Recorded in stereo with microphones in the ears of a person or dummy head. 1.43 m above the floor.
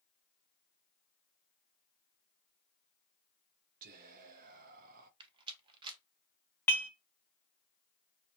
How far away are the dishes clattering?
About 0.8 m.